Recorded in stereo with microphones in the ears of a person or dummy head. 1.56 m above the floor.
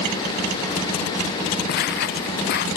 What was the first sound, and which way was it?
Footsteps, 55° left (ahead or behind).